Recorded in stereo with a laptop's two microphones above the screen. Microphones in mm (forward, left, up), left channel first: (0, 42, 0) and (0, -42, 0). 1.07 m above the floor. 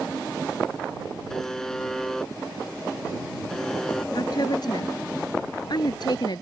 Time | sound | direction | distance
1.3 | a buzzer | 5° left (ahead or behind) | ?
4.2 | a woman speaking | 55° left (ahead or behind) | ?